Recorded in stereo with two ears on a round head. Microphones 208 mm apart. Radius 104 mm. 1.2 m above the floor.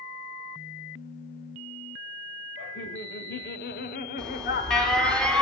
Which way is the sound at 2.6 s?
45° left (ahead or behind).